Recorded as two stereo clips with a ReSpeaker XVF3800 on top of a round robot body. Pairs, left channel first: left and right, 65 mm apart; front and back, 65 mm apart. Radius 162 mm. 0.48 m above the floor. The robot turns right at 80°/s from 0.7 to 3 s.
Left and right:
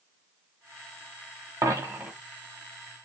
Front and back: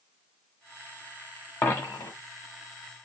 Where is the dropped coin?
60° right, 1.2 m; by 2.1 s 20° right, 1.2 m.